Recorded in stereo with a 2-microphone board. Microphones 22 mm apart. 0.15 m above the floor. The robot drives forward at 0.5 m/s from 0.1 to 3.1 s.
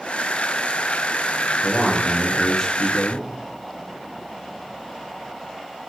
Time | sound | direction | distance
1.6 | a man speaking | 30° left (ahead or behind) | 1.1 m